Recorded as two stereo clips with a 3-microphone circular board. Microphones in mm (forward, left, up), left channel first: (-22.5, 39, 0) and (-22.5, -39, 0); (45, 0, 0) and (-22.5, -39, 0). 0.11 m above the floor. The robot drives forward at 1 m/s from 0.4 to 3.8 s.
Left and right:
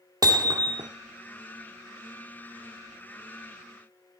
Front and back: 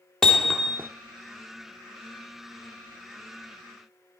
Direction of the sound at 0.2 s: 55° right.